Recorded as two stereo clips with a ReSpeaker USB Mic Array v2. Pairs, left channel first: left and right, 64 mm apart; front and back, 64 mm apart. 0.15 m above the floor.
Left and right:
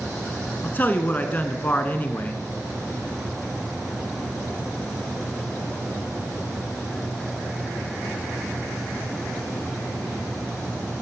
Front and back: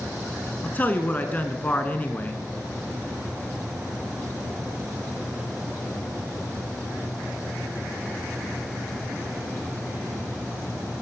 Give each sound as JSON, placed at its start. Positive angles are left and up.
{"t": 0.6, "sound": "a man speaking", "azimuth_deg": 50, "distance_m": 1.4}